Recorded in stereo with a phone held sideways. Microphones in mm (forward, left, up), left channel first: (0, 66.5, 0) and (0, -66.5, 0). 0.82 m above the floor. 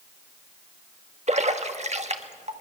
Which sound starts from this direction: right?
A splash, at 1.3 s.